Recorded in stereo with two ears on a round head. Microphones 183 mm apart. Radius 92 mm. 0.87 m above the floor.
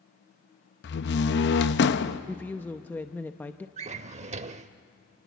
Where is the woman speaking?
10° left (ahead or behind), 0.6 m.